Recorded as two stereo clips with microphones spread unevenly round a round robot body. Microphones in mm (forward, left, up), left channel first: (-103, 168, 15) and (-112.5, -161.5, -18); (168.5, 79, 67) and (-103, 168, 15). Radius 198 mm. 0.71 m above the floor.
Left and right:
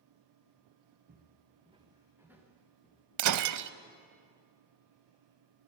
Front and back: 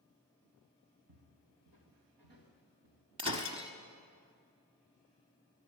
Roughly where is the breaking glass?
Behind right.